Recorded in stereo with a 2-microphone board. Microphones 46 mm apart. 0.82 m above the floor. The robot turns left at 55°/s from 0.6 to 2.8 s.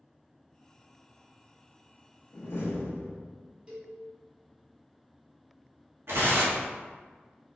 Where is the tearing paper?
65° right (ahead or behind), 1.2 m.